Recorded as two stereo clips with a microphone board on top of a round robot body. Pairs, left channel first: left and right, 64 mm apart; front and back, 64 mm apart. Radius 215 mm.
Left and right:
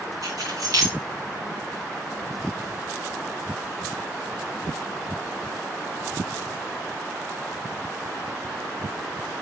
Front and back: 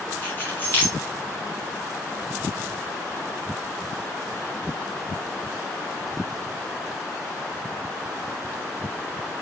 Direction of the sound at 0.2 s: 60° right.